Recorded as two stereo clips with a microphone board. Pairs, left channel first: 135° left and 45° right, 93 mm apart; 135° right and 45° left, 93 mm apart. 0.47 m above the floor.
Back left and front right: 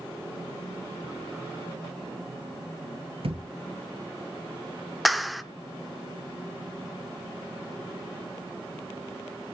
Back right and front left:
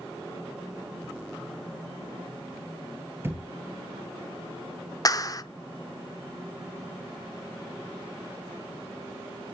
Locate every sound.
3.2 s a thud: 20° right, 2 m
5.0 s a clap: 135° right, 0.7 m